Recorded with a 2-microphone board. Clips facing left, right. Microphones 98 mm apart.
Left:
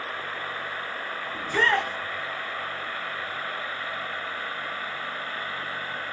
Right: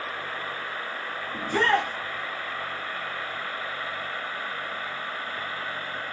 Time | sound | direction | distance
1.3 | a shout | 45° right (ahead or behind) | 1.5 m